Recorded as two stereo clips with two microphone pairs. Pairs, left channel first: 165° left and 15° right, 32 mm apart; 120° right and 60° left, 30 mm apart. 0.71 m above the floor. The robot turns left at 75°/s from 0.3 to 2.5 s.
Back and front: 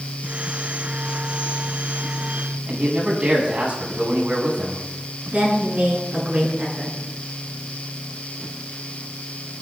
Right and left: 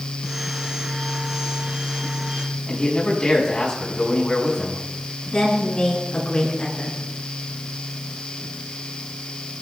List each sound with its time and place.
2.7 s a man speaking: 60° right, 6 m
5.3 s a woman speaking: 60° right, 7.5 m